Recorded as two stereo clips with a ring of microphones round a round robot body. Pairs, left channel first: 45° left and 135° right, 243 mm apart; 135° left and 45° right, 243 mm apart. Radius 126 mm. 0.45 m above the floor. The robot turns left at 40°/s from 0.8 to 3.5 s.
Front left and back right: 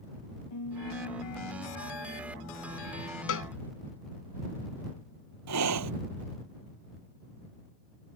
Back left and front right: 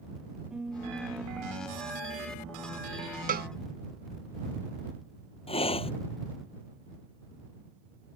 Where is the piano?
45° left; by 2.9 s 40° right.